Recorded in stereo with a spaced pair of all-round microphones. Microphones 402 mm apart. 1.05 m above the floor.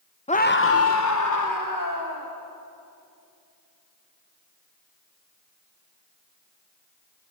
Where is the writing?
No writing in this recording.